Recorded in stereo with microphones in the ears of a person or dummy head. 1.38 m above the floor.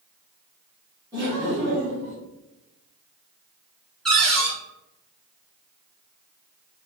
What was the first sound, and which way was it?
Laughter, 25° right (ahead or behind).